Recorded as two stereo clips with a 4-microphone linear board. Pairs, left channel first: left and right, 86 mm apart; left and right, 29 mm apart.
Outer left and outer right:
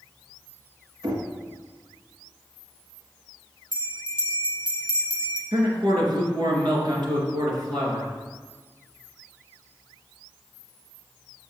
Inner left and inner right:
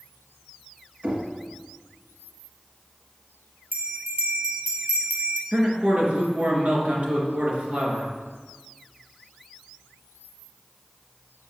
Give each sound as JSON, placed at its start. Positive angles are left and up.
{"t": 1.0, "sound": "knocking", "side_deg": -55, "distance_m": 1.5}
{"t": 3.7, "sound": "a bell", "side_deg": -70, "distance_m": 1.1}
{"t": 5.5, "sound": "a man speaking", "side_deg": -60, "distance_m": 2.5}